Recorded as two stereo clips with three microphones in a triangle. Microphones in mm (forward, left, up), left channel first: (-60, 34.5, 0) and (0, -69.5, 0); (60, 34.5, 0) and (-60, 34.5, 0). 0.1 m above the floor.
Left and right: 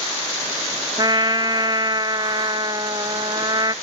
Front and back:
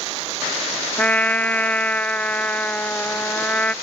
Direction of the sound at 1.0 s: 70° right.